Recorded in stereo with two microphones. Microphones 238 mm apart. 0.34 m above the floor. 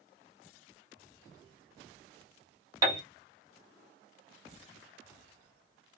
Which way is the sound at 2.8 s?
15° right (ahead or behind).